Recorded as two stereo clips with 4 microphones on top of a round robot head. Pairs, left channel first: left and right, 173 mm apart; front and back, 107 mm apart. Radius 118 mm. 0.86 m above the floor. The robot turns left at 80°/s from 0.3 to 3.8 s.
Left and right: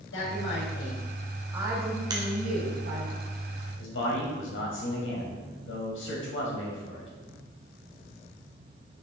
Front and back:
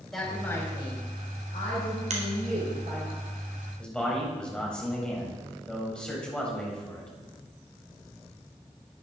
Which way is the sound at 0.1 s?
85° left.